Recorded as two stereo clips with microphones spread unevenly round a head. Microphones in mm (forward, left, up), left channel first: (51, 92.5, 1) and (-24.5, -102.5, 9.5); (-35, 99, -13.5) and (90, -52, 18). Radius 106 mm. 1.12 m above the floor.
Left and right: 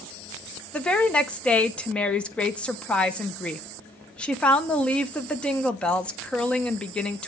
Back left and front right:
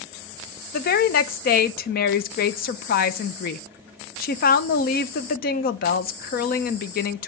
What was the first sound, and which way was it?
A woman speaking, 150° left.